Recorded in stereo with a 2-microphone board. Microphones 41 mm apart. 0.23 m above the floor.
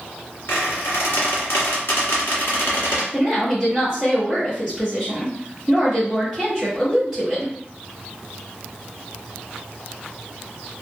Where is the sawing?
No sawing in this recording.